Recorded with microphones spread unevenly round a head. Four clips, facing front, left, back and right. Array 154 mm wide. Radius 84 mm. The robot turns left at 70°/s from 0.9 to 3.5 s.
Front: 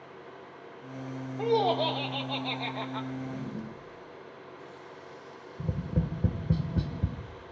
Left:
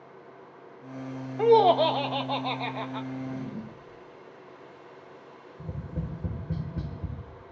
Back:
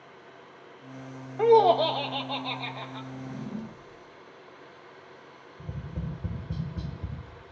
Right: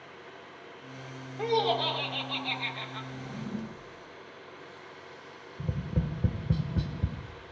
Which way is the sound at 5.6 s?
25° right.